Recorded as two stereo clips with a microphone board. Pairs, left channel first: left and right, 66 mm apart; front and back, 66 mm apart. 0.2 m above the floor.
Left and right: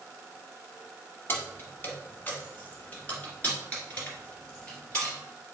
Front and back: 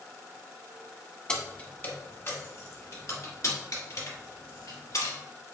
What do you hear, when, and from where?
1.3 s keys jangling: 65° left, 0.9 m; by 5.2 s 15° left, 2.5 m